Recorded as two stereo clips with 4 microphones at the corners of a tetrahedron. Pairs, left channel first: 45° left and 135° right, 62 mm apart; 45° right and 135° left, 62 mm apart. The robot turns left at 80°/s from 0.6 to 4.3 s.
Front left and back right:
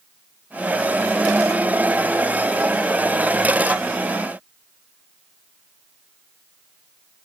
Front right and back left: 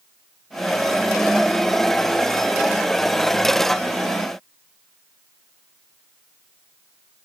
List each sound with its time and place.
Only background noise.